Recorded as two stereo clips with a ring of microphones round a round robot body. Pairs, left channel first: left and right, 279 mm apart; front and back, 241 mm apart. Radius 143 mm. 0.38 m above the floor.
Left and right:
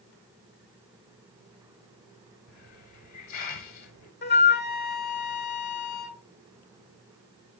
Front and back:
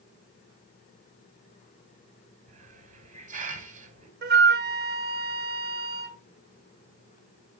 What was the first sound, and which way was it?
A hiss, 120° left.